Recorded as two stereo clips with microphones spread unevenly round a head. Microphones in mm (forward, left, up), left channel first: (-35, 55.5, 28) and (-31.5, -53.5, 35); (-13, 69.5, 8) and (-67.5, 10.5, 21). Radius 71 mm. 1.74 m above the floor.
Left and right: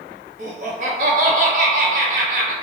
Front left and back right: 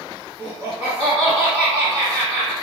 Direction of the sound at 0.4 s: 50° right.